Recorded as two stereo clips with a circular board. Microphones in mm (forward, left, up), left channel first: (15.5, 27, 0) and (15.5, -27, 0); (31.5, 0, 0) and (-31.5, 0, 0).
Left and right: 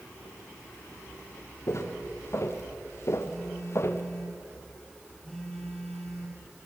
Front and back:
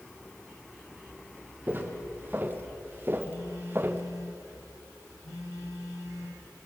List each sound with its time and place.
1.7 s footsteps: 120° left, 3 m; by 4.0 s 125° left, 1.5 m
3.2 s a phone buzzing: 5° left, 9 m